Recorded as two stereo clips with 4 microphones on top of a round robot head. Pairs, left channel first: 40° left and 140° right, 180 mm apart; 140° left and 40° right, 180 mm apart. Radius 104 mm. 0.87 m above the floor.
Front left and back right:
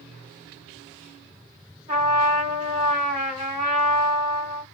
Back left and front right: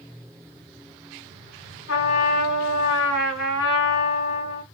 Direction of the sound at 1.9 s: 160° left.